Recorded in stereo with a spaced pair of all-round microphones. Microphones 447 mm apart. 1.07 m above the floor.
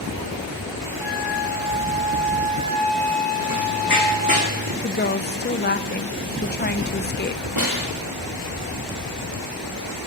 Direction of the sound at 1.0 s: 80° right.